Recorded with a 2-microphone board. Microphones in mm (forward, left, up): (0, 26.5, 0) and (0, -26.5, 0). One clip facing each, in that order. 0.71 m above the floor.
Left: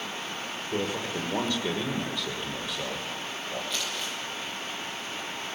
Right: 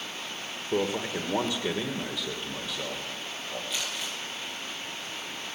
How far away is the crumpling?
About 9 m.